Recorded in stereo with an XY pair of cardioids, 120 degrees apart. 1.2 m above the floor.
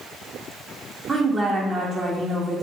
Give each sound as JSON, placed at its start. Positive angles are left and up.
{"t": 1.1, "sound": "a woman speaking", "azimuth_deg": -30, "distance_m": 1.0}